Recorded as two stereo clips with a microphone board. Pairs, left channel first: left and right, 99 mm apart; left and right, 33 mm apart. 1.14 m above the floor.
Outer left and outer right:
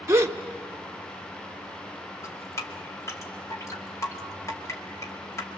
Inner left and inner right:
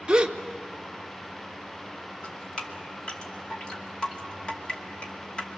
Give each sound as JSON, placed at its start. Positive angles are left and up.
{"t": 0.1, "sound": "a gasp", "side_deg": -25, "distance_m": 1.0}
{"t": 2.2, "sound": "dripping", "side_deg": 30, "distance_m": 2.5}